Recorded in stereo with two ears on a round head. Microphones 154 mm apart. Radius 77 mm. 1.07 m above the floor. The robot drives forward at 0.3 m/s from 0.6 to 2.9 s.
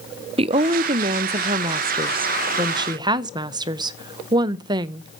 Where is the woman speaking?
35° right (ahead or behind), 0.5 m; by 5.2 s 25° right (ahead or behind), 0.7 m.